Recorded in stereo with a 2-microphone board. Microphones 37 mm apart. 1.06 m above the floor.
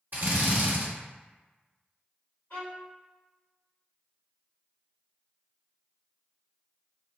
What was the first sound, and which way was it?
A drill, 55° right (ahead or behind).